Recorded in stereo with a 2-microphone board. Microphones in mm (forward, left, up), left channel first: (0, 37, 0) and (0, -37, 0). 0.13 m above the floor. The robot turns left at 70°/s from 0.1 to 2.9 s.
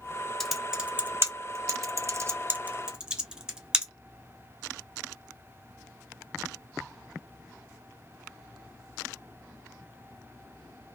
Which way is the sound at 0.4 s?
5° left (ahead or behind).